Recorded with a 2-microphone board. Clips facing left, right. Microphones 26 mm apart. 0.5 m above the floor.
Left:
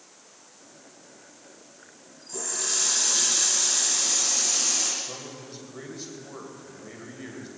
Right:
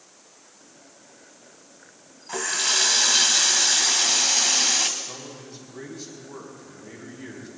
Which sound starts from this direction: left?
A man speaking, at 5.0 s.